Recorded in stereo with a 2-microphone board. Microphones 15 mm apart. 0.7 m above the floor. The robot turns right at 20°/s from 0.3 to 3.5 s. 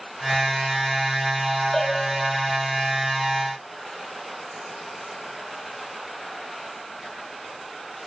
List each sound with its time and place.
1.7 s a bell: 75° left (ahead or behind), 2.5 m; by 2.2 s 80° left, 2.5 m